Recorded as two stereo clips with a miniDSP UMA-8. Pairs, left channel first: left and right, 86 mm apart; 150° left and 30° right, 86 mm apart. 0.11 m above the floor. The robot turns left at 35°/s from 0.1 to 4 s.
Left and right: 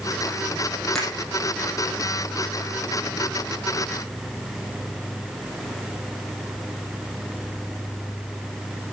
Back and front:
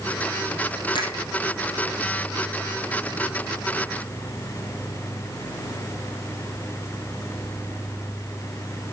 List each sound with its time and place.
0.9 s a finger snap: 170° left, 3.5 m; by 1.2 s 165° left, 3.5 m